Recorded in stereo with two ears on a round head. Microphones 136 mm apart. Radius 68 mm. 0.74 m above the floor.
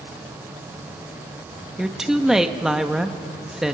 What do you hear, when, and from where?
1.8 s a woman speaking: 5° right (ahead or behind), 1.0 m